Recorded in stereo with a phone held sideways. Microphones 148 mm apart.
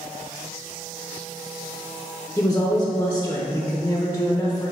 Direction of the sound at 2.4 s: 15° left (ahead or behind).